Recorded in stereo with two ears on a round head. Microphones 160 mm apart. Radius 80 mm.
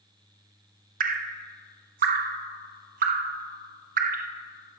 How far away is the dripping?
About 0.5 m.